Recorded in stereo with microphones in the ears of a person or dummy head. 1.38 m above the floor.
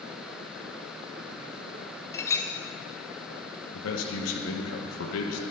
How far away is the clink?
About 0.6 m.